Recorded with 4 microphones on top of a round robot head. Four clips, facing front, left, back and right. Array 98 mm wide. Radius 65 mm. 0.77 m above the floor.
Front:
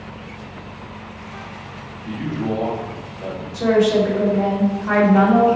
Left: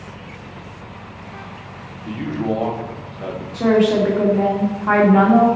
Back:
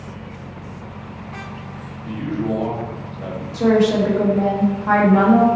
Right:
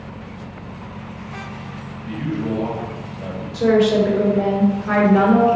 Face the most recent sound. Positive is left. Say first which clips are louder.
# even, even
turn(degrees=115)